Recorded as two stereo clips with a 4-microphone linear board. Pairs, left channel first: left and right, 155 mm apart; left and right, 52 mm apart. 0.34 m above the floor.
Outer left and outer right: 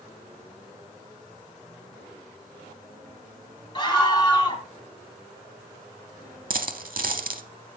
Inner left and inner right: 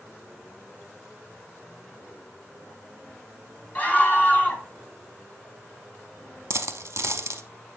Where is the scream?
30° left (ahead or behind), 1.8 m.